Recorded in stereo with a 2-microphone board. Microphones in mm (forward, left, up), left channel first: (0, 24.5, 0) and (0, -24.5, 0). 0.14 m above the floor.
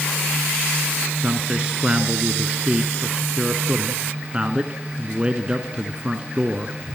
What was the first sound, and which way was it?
A man speaking, 20° right (ahead or behind).